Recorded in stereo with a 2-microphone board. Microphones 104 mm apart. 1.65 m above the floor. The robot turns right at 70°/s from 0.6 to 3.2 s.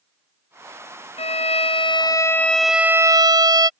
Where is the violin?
80° left; by 3.7 s 140° right.